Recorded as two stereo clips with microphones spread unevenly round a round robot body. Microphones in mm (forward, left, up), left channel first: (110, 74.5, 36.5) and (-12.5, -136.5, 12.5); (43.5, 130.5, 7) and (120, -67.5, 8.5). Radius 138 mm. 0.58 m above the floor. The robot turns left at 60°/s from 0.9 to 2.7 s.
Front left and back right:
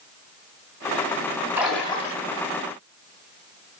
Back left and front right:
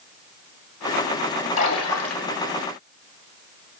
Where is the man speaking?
No man speaking in this recording.